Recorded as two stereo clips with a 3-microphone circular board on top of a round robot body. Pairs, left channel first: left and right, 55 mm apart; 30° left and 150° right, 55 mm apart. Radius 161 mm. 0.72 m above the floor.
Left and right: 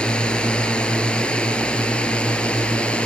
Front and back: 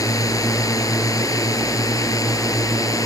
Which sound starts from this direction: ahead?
A drone, at 0.0 s.